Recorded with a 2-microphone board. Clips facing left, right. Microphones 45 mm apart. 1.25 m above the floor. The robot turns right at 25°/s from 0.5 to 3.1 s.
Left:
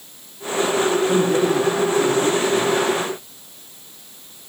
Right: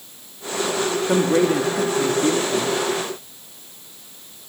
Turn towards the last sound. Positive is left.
turn(degrees=-85)